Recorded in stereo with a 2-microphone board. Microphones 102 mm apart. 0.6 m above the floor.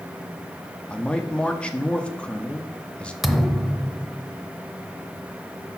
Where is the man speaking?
10° left (ahead or behind), 0.7 m.